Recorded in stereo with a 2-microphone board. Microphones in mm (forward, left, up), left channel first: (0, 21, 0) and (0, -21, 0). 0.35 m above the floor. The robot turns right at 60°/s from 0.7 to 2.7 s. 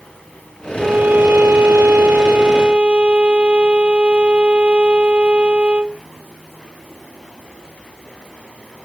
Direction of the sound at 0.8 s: 145° right.